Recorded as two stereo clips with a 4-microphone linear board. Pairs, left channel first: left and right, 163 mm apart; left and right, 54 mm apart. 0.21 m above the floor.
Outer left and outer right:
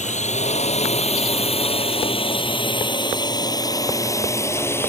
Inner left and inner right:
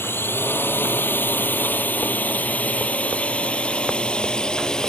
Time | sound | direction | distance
0.0 | a drone | 45° left (ahead or behind) | ?